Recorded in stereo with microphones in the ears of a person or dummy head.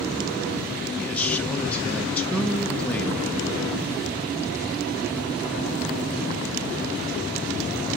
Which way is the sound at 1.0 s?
10° left (ahead or behind).